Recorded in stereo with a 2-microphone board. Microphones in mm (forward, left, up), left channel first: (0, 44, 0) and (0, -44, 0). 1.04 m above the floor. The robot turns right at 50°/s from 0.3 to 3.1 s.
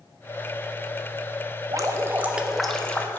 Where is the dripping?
45° right, 0.5 m; by 3.2 s 25° left, 0.5 m.